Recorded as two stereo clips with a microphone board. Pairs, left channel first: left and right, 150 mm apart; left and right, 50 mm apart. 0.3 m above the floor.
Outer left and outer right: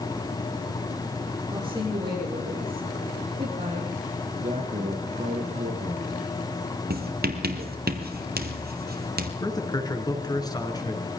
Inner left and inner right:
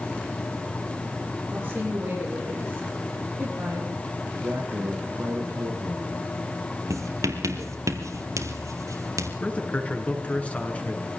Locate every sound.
1.5 s a woman speaking: 25° right (ahead or behind), 8.5 m; by 4.0 s 35° right (ahead or behind), 8 m
4.2 s a man speaking: 50° right (ahead or behind), 3.5 m
6.9 s writing: 85° right, 2.5 m
9.4 s a man speaking: 25° left (ahead or behind), 4.5 m